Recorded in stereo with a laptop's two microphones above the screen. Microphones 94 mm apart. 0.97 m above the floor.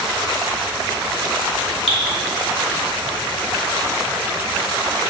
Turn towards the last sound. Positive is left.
turn(degrees=-80)